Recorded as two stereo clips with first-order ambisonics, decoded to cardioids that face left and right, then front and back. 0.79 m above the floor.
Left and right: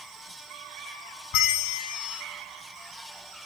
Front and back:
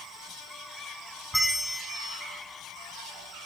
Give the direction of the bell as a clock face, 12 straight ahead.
9 o'clock.